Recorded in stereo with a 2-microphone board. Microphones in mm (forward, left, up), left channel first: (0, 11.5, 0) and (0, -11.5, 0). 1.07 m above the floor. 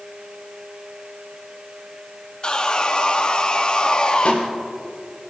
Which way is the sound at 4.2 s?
60° left (ahead or behind).